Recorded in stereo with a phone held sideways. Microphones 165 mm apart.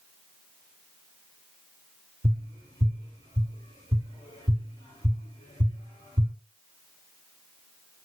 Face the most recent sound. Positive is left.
turn(degrees=-30)  # may be behind; listen again after turning